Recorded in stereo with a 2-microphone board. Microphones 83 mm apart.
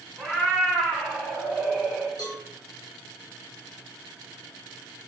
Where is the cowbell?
55° left (ahead or behind), 1.2 m.